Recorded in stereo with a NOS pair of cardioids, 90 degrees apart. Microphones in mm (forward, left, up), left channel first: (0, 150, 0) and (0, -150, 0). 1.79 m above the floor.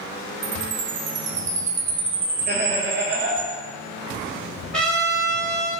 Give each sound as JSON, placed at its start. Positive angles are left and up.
{"t": 0.4, "sound": "a chime", "azimuth_deg": -40, "distance_m": 0.5}
{"t": 2.5, "sound": "laughter", "azimuth_deg": -35, "distance_m": 0.8}
{"t": 4.7, "sound": "a trumpet", "azimuth_deg": 5, "distance_m": 1.5}